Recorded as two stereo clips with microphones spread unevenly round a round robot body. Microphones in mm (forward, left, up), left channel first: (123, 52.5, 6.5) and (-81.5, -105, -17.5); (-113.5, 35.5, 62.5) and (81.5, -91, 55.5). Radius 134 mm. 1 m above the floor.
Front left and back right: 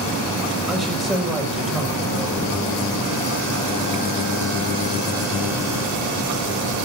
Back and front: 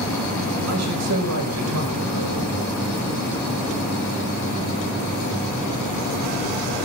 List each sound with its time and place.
0.7 s a man speaking: 50° right, 5 m